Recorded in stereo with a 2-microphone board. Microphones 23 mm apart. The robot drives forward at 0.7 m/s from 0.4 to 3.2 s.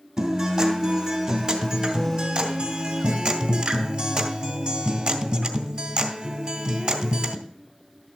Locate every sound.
0.2 s a guitar: 30° right (ahead or behind), 3 m; by 7.4 s 45° right (ahead or behind), 2 m